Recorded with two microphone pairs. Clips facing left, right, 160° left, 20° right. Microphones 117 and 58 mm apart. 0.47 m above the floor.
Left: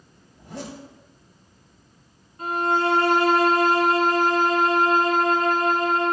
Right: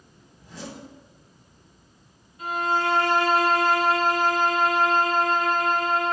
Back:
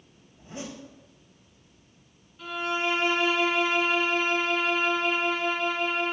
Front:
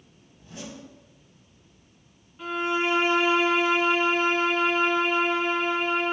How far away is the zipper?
About 3 m.